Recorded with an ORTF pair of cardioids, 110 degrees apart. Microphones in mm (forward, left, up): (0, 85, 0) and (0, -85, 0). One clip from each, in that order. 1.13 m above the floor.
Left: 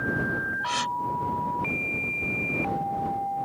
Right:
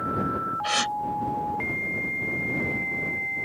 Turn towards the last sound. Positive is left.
turn(degrees=-35)